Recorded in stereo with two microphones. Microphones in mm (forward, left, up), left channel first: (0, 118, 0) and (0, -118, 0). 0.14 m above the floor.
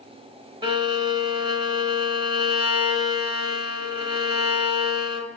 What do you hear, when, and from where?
0.6 s a violin: 20° right (ahead or behind), 0.9 m